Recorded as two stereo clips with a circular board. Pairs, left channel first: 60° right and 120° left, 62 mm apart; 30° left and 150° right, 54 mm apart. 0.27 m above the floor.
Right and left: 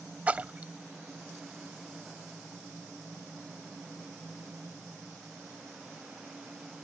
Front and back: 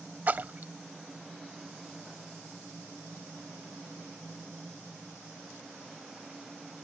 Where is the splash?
175° left.